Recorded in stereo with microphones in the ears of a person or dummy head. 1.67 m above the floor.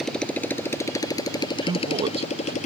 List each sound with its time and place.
0.0 s a motorcycle: centre (ahead or behind); by 2.7 s 40° left (ahead or behind)
1.6 s a man speaking: 25° right (ahead or behind)